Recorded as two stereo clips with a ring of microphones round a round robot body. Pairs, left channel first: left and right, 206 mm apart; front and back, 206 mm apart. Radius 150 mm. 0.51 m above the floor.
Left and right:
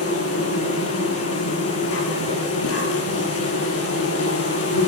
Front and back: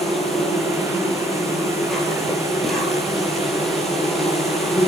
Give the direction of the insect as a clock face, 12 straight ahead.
9 o'clock.